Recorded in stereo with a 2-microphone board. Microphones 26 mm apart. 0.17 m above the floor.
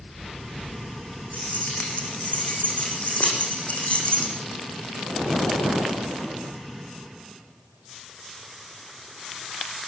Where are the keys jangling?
75° left (ahead or behind), 8 m; by 4.3 s 60° left (ahead or behind), 7 m.